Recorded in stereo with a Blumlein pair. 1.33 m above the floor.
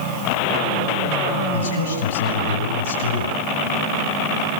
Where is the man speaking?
65° left, 8.5 m.